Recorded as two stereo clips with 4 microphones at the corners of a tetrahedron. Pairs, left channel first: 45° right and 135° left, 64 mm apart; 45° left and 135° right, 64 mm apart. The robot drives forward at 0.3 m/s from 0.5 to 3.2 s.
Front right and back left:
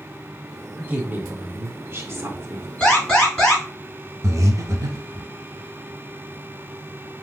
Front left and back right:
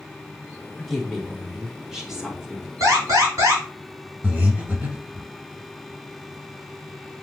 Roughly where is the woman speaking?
Behind left.